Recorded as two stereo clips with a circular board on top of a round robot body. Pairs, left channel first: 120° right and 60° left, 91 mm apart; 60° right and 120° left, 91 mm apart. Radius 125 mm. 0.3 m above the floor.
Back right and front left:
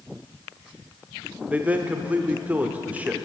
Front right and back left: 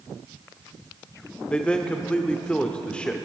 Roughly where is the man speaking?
Ahead.